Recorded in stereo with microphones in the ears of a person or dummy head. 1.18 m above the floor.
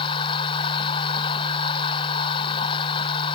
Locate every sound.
0.0 s a machine running: 30° left (ahead or behind)